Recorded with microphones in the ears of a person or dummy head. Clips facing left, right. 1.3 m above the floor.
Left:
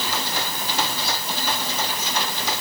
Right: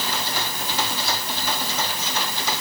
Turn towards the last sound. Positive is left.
No sound to turn to.